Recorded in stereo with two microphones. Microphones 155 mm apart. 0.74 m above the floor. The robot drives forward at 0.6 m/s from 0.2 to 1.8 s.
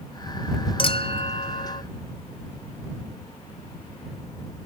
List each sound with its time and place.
0.8 s a clink: 35° left (ahead or behind); by 1.8 s 50° left (ahead or behind)